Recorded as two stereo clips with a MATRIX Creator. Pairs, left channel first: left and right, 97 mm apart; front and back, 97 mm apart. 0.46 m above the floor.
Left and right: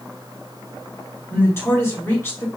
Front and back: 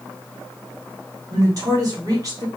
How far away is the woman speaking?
About 1.9 m.